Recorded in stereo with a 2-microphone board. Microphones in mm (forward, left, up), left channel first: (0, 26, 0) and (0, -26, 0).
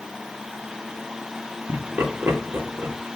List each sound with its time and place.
1.7 s laughter: 50° right (ahead or behind), 1.4 m